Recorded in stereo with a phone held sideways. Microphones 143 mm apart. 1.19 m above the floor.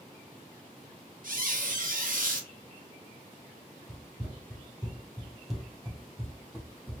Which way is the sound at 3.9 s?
10° right (ahead or behind).